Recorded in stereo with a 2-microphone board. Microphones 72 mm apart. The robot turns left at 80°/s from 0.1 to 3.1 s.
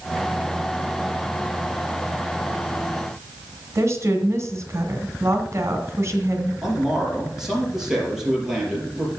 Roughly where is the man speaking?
Centre.